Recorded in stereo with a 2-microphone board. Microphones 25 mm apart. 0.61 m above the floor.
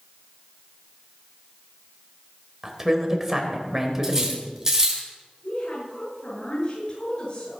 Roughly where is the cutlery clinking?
Right.